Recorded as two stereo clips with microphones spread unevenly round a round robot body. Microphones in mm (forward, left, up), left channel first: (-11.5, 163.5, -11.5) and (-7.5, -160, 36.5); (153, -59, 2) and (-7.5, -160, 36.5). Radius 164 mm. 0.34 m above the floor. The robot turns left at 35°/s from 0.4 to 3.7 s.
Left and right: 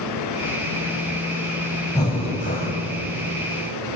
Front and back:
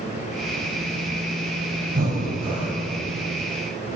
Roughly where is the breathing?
Behind.